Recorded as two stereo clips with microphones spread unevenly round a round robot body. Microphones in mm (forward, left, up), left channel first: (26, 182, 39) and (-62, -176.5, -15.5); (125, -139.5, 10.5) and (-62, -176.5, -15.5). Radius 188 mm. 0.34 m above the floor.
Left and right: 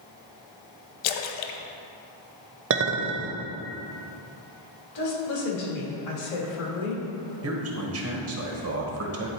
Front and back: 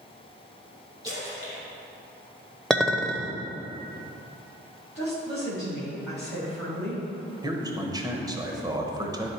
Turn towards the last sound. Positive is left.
turn(degrees=-115)